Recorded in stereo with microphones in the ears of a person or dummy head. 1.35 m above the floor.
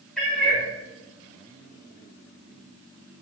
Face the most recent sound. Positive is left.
turn(degrees=5)  # may be behind; listen again after turning